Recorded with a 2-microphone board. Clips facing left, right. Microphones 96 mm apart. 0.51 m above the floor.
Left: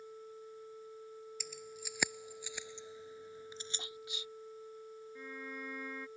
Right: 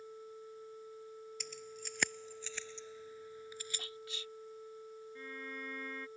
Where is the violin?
5° left (ahead or behind).